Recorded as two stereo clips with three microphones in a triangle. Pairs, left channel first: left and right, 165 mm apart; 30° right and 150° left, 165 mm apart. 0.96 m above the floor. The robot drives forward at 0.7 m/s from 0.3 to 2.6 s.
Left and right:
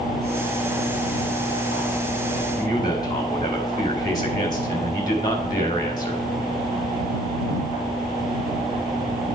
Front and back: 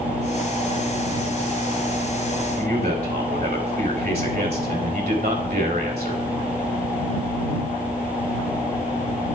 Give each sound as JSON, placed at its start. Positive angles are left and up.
{"t": 2.6, "sound": "a man speaking", "azimuth_deg": 155, "distance_m": 4.5}